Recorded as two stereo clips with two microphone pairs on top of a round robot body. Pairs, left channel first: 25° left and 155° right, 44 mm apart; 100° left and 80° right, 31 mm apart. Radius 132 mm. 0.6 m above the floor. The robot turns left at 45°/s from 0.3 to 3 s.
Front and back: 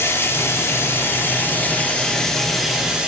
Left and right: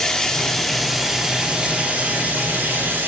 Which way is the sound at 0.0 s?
40° left.